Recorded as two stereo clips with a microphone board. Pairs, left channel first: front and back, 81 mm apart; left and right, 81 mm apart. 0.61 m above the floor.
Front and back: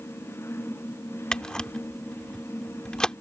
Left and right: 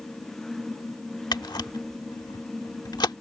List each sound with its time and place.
1.3 s a camera shutter: 80° left